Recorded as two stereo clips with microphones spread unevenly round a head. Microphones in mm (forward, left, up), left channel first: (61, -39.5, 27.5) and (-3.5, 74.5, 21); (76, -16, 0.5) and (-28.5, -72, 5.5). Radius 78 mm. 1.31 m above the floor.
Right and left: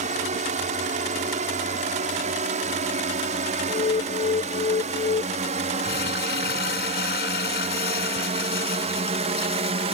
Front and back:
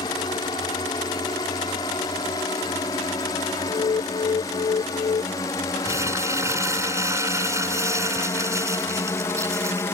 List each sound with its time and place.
0.0 s a drone: 95° left
3.7 s an alarm: 25° right
5.8 s crumpling: 85° right